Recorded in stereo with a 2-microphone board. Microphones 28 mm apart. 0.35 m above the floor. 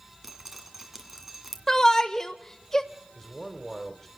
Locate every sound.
0.2 s dripping: 10° right (ahead or behind), 2 m
1.7 s a shout: 20° left (ahead or behind), 0.9 m
3.1 s a man speaking: 5° left (ahead or behind), 1.6 m